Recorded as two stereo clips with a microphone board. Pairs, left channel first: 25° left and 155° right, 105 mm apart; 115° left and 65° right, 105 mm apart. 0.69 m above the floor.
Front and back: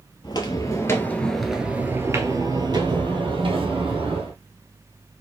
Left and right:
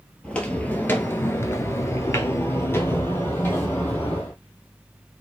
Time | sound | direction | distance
0.2 | footsteps | 40° left | 0.9 m